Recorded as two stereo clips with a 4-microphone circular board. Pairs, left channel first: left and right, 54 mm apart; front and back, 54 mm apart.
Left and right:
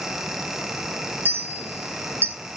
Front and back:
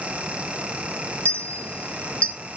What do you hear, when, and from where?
1.2 s a clink: 60° right, 1.5 m